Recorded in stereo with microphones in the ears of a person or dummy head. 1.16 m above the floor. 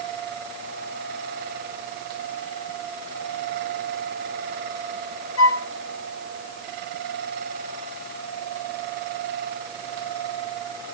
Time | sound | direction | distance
5.4 | a flute | 75° left (ahead or behind) | 1.1 m